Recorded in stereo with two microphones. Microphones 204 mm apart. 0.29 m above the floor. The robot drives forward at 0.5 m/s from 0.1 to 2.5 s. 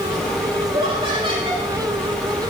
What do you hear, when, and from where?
0.7 s laughter: 25° right (ahead or behind), 8 m